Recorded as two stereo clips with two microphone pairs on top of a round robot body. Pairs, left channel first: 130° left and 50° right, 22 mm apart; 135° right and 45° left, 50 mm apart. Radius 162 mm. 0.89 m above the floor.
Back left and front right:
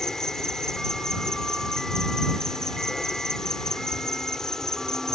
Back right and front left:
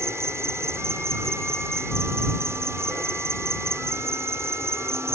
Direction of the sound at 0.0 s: 70° left.